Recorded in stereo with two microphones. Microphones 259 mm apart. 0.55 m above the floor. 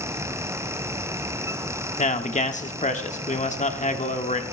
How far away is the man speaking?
About 1.1 m.